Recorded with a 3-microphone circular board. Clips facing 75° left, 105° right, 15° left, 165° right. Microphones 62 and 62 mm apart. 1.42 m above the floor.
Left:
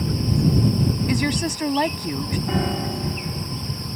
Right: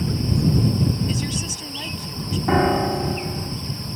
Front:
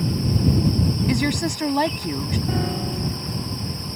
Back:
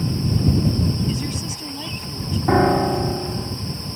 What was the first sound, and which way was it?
A woman speaking, 40° left.